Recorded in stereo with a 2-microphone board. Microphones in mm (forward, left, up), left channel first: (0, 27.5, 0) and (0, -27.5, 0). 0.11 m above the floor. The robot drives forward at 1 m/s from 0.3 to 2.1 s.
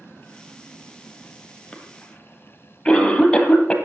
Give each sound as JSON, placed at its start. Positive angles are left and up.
{"t": 1.7, "sound": "a cough", "side_deg": 15, "distance_m": 2.5}